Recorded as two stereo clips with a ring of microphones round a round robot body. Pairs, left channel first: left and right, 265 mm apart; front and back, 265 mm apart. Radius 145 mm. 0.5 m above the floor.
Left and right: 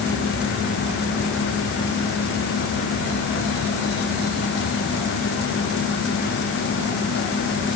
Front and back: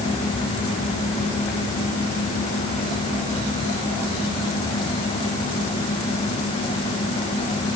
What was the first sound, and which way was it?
Only background noise.